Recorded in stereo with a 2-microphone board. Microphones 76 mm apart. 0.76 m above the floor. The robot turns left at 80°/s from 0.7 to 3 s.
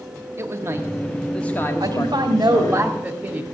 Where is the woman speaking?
65° right, 1.8 m; by 3.4 s 160° right, 1.8 m.